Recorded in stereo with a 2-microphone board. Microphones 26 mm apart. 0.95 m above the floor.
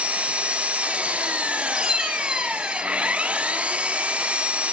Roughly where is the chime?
Right.